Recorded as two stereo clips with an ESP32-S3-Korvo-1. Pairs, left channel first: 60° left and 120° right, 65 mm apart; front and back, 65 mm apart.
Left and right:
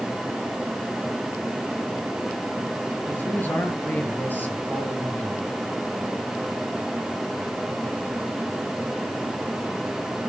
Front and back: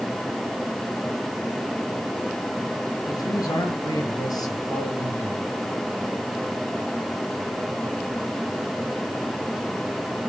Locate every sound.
3.1 s a man speaking: straight ahead, 7 m